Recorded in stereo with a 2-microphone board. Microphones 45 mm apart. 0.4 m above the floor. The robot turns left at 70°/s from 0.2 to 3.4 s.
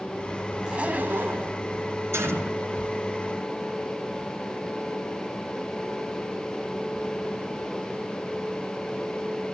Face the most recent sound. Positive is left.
turn(degrees=-165)